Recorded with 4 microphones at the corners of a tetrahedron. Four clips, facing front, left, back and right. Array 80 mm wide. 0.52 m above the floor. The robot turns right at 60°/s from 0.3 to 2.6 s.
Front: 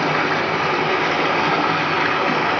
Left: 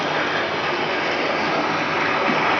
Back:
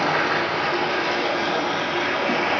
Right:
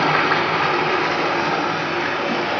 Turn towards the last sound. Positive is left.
turn(degrees=60)